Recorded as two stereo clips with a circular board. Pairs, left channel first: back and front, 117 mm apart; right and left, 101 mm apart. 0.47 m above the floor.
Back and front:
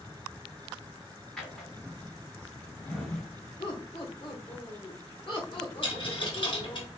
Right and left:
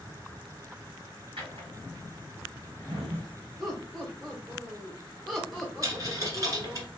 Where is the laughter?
175° right, 1.0 m.